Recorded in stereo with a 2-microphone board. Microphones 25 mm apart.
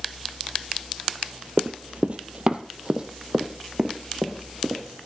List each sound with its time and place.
1.6 s running footsteps: 45° right (ahead or behind), 0.6 m; by 4.8 s 20° right (ahead or behind), 1.9 m